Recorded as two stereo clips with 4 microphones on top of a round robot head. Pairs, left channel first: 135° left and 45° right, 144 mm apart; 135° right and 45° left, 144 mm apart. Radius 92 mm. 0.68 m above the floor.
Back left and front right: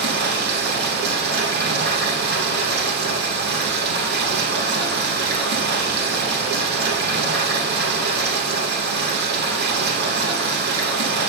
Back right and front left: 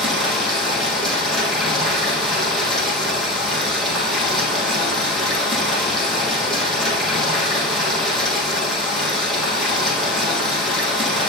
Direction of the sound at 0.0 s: 45° right.